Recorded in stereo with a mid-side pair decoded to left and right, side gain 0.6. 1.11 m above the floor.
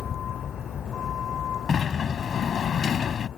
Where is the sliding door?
40° left.